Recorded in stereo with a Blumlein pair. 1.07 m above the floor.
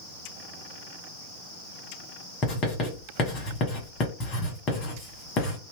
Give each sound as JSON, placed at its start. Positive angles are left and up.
{"t": 2.4, "sound": "writing", "azimuth_deg": 30, "distance_m": 1.2}